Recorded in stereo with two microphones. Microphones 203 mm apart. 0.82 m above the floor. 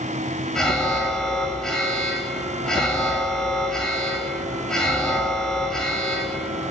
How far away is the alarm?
About 1.9 m.